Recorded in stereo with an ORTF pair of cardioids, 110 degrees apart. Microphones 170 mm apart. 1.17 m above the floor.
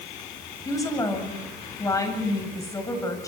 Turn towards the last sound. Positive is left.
turn(degrees=20)